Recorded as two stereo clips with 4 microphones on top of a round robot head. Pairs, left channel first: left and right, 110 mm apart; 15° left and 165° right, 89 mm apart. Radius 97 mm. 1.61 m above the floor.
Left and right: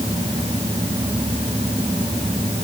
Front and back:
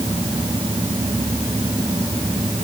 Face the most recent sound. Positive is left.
No sound to turn to.